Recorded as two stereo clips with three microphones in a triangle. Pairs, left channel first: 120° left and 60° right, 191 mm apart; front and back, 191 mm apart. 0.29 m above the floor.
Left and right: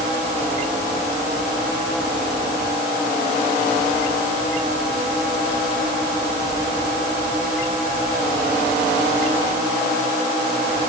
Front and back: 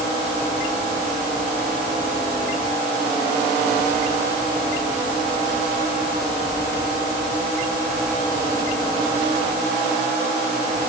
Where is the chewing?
No chewing in this recording.